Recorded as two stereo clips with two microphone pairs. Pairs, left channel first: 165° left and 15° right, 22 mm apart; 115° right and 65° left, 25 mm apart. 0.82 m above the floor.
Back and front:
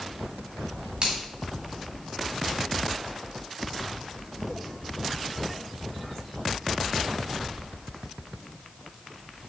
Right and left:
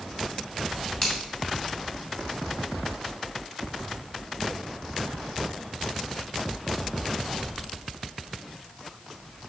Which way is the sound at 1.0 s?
50° right.